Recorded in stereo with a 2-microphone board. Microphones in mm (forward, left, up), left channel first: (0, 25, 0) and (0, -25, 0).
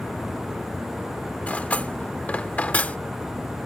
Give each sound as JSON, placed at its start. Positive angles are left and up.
{"t": 1.5, "sound": "cutlery clinking", "side_deg": 30}